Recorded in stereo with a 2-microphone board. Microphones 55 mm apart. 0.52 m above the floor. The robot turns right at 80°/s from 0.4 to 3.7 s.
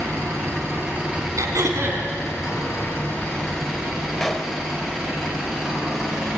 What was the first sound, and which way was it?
An engine running, 80° right.